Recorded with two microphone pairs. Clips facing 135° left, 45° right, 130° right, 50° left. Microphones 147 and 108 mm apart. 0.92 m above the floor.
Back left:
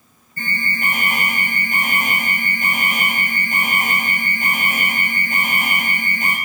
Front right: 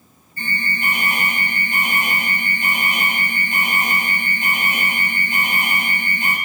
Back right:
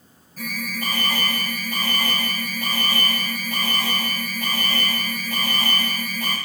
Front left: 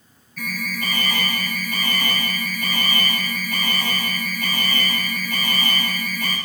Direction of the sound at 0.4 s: 175° left.